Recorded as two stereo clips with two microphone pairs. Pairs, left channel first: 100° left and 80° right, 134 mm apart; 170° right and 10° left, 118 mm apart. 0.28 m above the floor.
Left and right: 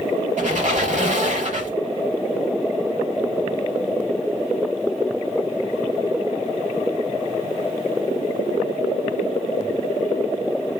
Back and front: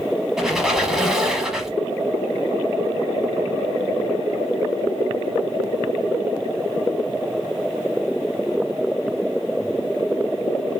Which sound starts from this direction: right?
A squeak, at 0.4 s.